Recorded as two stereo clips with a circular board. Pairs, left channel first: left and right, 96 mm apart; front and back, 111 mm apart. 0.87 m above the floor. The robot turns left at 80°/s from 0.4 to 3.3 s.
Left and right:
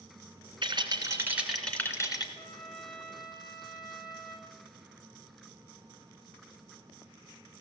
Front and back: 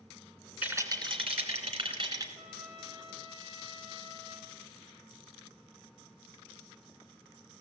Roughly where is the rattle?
Right.